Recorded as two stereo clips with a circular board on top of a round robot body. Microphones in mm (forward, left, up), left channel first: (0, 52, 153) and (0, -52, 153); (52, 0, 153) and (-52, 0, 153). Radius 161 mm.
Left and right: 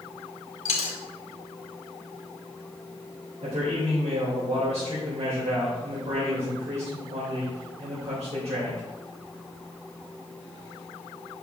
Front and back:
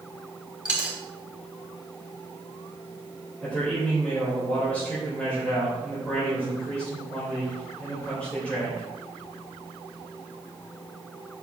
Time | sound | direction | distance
0.7 | a dropped coin | 100° left | 1.4 m
3.4 | a man speaking | 80° right | 3 m